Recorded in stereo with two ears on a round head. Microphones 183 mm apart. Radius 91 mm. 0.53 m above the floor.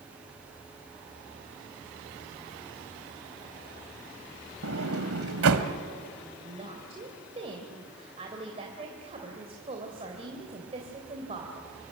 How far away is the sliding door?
About 1.7 m.